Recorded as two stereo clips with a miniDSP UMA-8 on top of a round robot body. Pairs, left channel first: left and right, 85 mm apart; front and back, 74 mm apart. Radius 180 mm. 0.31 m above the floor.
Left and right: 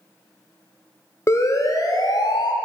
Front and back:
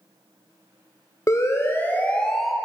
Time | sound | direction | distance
1.3 | a siren | 40° left | 2.5 m